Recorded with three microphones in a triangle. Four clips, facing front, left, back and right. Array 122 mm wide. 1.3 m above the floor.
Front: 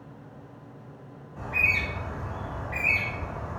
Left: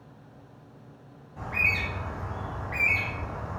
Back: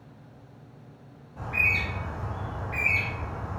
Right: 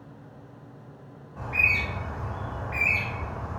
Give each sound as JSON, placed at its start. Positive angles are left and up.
{"t": 1.4, "sound": "a bird", "azimuth_deg": -80, "distance_m": 1.4}